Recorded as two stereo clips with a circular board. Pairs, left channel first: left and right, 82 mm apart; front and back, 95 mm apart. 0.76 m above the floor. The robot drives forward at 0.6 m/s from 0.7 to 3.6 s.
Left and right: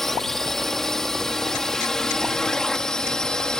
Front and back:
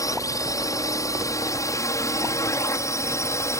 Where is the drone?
5° left; by 3.6 s 15° left.